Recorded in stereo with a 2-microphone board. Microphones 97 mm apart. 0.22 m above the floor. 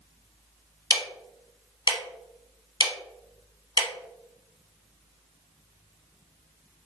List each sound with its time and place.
0.9 s ticking: 50° left (ahead or behind), 0.6 m